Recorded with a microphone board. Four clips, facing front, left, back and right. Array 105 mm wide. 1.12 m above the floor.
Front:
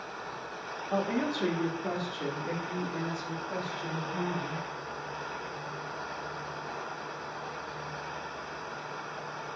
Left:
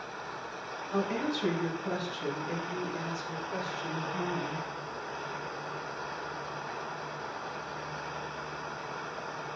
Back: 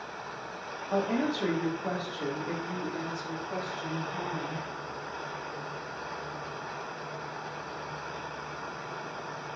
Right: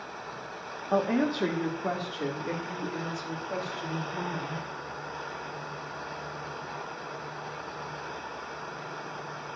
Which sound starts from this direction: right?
A woman speaking, at 0.9 s.